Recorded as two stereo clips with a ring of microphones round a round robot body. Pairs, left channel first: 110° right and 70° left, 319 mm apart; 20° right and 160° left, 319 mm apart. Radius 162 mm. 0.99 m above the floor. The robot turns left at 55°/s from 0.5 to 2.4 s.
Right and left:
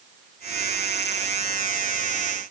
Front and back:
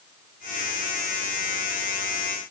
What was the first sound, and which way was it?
Only background noise.